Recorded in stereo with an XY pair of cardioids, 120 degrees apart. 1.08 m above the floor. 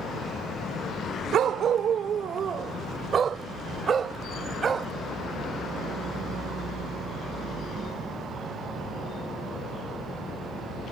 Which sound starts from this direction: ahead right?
A dog barking, at 1.3 s.